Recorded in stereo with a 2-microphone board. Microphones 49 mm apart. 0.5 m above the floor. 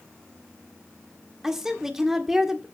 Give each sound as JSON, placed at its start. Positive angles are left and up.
{"t": 1.4, "sound": "a woman speaking", "side_deg": -5, "distance_m": 1.6}